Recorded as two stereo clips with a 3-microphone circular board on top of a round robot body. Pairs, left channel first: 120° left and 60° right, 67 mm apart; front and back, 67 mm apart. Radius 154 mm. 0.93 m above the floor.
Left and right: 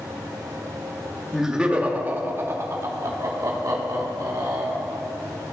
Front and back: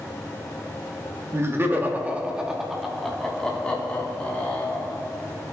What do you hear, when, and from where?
1.3 s laughter: 145° right, 1.4 m; by 5.0 s 60° right, 2.5 m